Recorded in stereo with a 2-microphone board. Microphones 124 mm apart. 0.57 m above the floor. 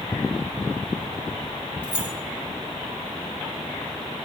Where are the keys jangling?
10° right (ahead or behind), 1.6 m.